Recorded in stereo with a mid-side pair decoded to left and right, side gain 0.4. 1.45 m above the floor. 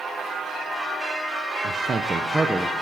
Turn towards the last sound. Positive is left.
turn(degrees=-10)